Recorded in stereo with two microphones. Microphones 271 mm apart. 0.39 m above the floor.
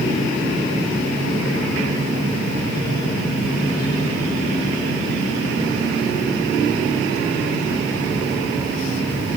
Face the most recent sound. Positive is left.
No sound to turn to.